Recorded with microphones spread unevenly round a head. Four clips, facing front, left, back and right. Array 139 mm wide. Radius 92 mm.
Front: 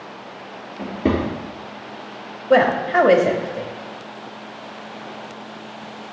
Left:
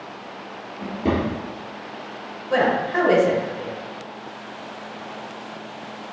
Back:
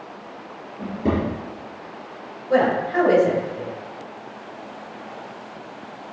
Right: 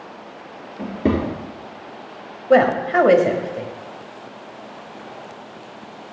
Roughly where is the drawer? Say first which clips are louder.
Right 2 dB, front 2 dB; right.